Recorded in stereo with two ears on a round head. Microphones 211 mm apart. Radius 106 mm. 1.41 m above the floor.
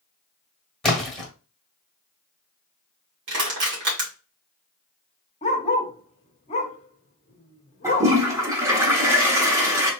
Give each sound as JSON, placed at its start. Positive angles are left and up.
{"t": 0.8, "sound": "a splash", "side_deg": 0, "distance_m": 1.2}
{"t": 3.3, "sound": "crushing", "side_deg": -55, "distance_m": 2.0}
{"t": 5.4, "sound": "a dog barking", "side_deg": 30, "distance_m": 0.9}
{"t": 7.8, "sound": "a toilet flushing", "side_deg": -15, "distance_m": 1.3}